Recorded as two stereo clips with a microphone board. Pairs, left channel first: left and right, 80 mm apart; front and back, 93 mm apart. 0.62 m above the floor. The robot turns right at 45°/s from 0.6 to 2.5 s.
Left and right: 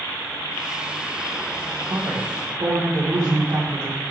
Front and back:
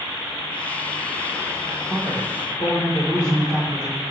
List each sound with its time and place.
1.9 s a man speaking: 85° right, 2 m; by 4.0 s 60° right, 2 m